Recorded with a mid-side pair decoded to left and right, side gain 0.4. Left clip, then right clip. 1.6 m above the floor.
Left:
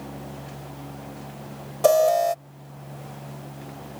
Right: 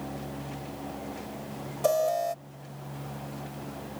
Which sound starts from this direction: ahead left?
An alarm, at 1.8 s.